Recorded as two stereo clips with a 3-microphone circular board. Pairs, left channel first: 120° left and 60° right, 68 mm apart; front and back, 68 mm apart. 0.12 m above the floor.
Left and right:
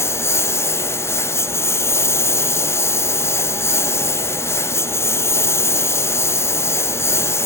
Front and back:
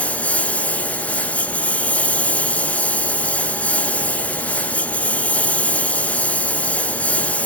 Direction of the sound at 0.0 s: 70° left.